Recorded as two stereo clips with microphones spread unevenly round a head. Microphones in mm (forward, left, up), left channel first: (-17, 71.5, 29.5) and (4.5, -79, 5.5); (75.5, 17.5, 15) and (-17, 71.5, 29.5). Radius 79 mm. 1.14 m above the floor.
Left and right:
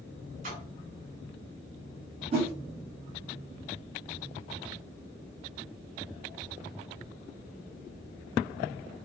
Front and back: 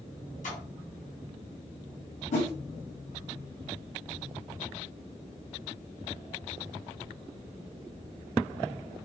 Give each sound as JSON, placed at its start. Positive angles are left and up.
{"t": 0.4, "sound": "a splash", "azimuth_deg": -35, "distance_m": 2.5}
{"t": 2.3, "sound": "a whoosh", "azimuth_deg": -30, "distance_m": 2.5}